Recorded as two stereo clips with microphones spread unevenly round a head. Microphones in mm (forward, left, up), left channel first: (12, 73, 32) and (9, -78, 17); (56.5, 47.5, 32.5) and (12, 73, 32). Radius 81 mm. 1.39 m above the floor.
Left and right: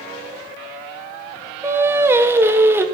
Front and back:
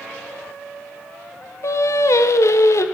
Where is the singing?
15° right, 0.6 m.